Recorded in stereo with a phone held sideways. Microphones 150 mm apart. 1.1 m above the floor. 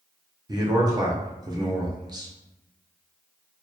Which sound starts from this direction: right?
A man speaking, at 0.5 s.